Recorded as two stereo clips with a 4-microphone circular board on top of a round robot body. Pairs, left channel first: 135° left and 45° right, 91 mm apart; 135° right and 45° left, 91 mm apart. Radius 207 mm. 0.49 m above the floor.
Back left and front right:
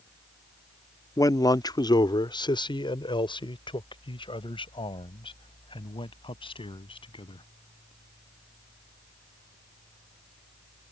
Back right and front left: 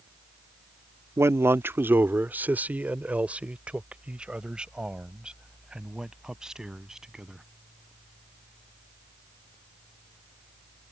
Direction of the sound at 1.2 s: 95° left.